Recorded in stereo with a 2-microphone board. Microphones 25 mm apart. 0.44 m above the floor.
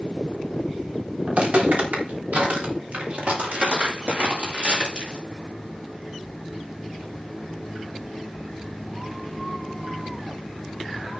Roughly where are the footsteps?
Right.